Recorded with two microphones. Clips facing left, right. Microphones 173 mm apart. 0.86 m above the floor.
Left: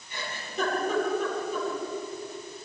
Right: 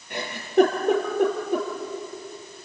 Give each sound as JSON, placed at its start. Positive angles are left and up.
{"t": 0.1, "sound": "a giggle", "side_deg": -85, "distance_m": 5.0}